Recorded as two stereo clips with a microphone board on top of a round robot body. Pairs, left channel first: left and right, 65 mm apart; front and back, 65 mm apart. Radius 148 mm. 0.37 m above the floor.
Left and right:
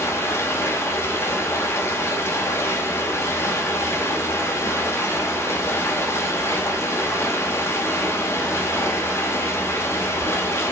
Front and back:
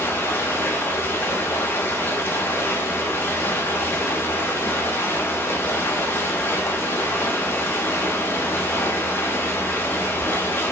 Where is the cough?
No cough in this recording.